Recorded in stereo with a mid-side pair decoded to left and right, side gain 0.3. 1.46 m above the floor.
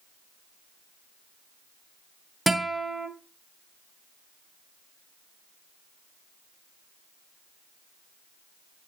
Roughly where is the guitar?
Ahead.